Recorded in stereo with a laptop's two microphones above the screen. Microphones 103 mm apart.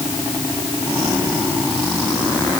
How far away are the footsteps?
I don't hear footsteps.